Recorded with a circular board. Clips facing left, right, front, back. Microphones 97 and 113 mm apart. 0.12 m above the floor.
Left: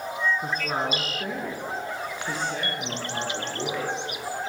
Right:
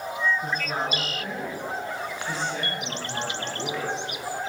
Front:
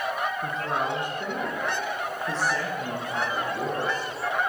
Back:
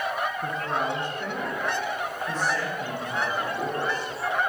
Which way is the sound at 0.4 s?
90° left.